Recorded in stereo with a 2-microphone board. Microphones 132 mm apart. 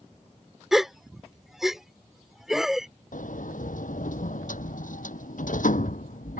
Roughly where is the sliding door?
Left.